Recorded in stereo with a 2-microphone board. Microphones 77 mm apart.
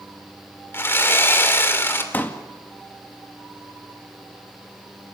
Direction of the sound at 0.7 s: 30° left (ahead or behind).